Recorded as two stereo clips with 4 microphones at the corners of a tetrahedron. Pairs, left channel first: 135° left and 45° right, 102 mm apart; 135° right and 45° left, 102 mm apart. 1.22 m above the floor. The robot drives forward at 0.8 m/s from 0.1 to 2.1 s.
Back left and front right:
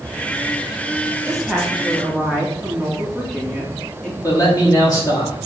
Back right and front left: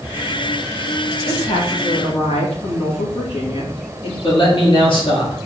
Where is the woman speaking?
130° right, 2 m; by 4.1 s 145° right, 2.5 m.